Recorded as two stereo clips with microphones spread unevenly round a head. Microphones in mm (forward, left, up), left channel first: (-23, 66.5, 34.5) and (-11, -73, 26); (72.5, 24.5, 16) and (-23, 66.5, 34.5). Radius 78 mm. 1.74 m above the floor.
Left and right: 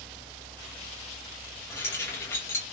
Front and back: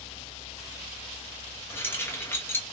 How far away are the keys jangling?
About 0.7 m.